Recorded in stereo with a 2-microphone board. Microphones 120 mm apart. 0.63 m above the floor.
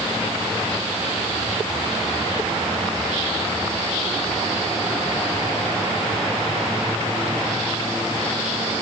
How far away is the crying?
No crying in this recording.